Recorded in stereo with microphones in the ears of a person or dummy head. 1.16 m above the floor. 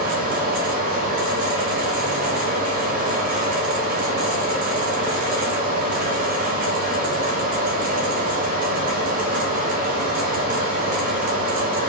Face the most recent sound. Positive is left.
turn(degrees=-45)  # may be behind; listen again after turning